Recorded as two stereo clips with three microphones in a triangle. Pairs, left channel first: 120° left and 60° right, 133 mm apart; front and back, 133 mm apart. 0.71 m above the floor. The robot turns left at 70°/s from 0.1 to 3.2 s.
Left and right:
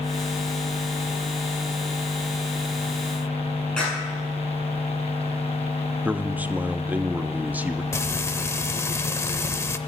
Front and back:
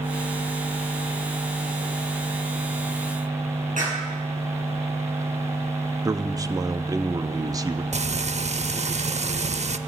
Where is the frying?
175° right, 0.5 m.